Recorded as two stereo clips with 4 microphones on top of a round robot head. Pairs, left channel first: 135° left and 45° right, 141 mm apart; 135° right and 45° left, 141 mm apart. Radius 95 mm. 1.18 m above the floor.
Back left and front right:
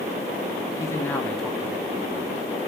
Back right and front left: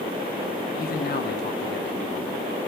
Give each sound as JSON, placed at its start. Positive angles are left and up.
{"t": 0.8, "sound": "a man speaking", "azimuth_deg": -160, "distance_m": 1.1}